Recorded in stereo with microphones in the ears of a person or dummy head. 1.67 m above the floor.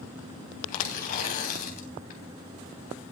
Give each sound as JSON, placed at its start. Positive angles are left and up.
{"t": 0.7, "sound": "tearing paper", "side_deg": 50, "distance_m": 3.5}